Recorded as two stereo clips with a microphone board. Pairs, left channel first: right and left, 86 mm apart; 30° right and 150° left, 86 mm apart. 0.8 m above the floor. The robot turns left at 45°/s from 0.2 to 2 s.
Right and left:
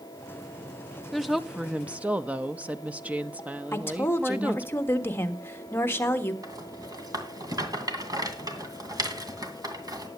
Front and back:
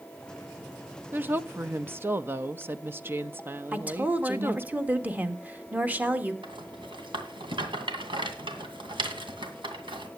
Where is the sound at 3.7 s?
145° right, 1.4 m.